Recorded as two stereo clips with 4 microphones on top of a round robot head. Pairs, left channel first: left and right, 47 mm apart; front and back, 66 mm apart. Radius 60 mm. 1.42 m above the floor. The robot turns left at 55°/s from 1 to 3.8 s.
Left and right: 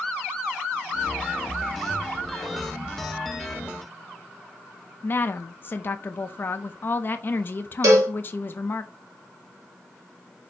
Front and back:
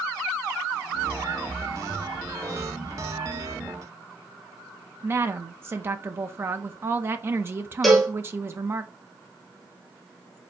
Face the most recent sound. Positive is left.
turn(degrees=-90)